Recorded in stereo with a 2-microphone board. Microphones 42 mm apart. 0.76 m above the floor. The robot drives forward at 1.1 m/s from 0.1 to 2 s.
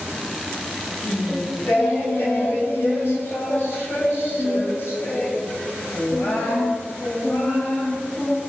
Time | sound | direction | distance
1.0 | singing | 45° left (ahead or behind) | 4 m